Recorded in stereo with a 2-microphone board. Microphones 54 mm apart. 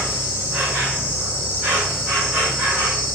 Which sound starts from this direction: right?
An insect, at 0.0 s.